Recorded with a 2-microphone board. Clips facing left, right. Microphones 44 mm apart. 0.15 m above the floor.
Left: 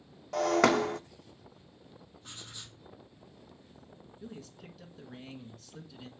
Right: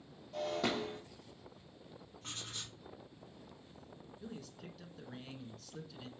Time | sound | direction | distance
0.3 | breaking glass | 80° left | 0.6 m
2.2 | writing | 65° right (ahead or behind) | 4 m
4.2 | a man speaking | centre (ahead or behind) | 1.6 m